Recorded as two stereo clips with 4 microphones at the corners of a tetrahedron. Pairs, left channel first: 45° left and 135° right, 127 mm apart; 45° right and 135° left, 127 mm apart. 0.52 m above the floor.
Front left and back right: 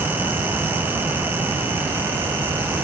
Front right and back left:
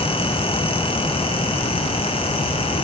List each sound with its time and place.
Only background noise.